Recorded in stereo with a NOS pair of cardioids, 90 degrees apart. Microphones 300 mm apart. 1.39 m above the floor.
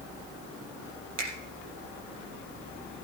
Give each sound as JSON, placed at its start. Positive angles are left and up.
{"t": 1.2, "sound": "a finger snap", "azimuth_deg": -60, "distance_m": 4.0}